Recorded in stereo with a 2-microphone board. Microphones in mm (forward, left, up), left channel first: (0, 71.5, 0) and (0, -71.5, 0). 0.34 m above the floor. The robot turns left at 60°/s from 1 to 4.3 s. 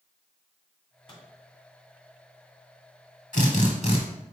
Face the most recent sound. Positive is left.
turn(degrees=30)